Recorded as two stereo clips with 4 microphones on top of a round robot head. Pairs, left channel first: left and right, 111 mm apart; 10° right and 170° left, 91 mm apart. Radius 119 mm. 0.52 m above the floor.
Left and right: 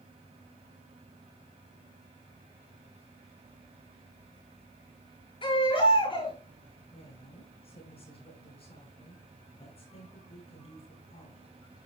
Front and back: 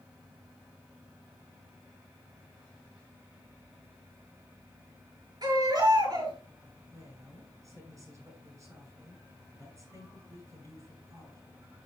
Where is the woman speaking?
115° left, 8.5 m.